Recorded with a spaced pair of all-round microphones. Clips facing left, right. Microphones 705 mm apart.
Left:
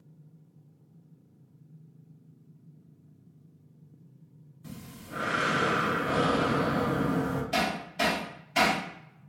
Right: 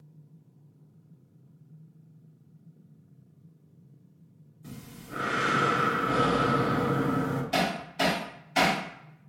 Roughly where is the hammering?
Centre.